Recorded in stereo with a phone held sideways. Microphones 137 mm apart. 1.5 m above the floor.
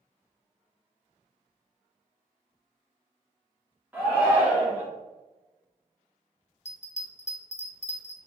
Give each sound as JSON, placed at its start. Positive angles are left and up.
{"t": 3.9, "sound": "a shout", "side_deg": -15, "distance_m": 2.5}
{"t": 6.7, "sound": "a bell", "side_deg": 55, "distance_m": 0.5}